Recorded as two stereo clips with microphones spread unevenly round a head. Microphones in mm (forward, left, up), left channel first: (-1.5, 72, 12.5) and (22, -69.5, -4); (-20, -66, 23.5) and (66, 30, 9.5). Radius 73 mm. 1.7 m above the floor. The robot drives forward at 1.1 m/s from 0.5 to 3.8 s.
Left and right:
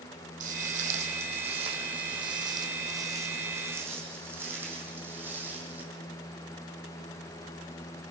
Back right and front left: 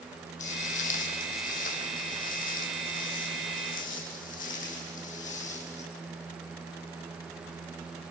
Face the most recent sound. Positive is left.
turn(degrees=-165)